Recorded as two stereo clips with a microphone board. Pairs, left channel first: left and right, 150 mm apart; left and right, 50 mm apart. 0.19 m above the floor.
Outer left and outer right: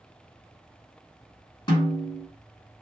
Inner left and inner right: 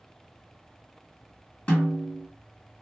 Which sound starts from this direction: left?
A snare drum, at 1.7 s.